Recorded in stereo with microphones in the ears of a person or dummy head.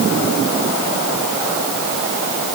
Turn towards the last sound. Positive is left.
No sound to turn to.